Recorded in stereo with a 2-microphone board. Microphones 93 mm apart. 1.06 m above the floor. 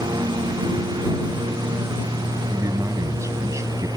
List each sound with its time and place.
0.0 s a lawn mower: 50° right (ahead or behind); by 4.0 s 45° right (ahead or behind)
2.5 s a man speaking: 35° right (ahead or behind)